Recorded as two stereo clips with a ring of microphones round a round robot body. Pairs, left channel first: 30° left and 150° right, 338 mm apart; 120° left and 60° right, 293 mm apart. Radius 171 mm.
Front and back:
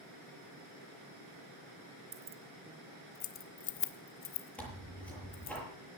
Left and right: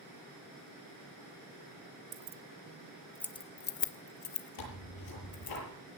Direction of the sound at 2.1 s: 80° right.